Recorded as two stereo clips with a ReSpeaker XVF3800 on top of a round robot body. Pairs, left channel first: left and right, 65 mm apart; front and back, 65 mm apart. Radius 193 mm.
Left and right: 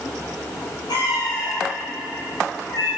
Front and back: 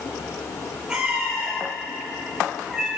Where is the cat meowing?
100° left, 5 m; by 2.9 s 95° left, 6.5 m.